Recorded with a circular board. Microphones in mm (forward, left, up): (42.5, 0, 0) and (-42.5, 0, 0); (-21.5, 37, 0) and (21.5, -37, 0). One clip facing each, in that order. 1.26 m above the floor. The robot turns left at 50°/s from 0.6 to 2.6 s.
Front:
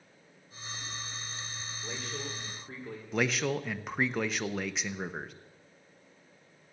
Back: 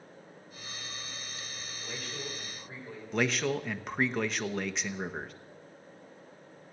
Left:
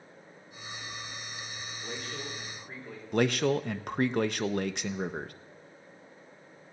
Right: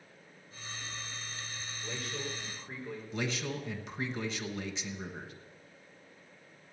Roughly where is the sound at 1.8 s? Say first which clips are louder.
Front 1 dB, even; left.